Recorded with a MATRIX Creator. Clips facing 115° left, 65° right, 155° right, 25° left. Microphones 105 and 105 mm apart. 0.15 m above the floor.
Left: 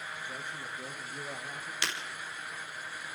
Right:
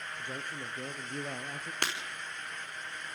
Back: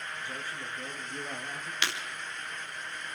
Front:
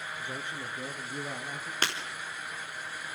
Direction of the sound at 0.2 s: 40° right.